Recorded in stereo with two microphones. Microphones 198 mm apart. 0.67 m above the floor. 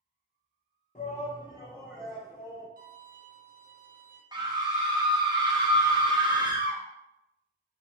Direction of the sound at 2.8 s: 50° right (ahead or behind).